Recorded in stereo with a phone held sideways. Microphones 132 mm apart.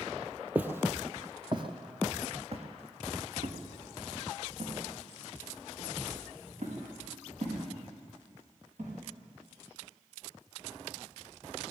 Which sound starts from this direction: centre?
Footsteps, at 0.6 s.